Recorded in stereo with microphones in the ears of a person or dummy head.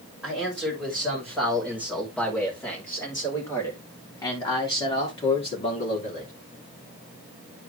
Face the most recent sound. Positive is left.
turn(degrees=45)  # may be behind; listen again after turning